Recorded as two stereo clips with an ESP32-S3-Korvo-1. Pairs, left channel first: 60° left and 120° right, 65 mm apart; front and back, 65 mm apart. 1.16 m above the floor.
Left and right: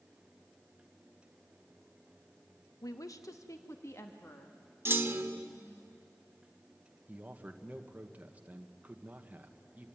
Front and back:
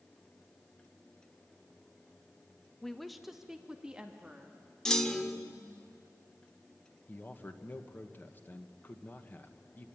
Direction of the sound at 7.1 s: 60° right.